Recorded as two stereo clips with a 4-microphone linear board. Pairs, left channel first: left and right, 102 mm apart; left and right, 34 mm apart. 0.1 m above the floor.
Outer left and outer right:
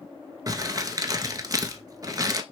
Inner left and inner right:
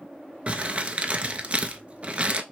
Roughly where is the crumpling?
Right.